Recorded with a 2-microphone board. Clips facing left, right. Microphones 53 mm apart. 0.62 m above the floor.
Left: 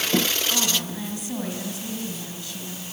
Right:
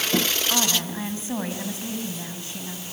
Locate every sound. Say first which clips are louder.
0.5 s a woman speaking: right 1 dB; 30° right (ahead or behind), 5.5 m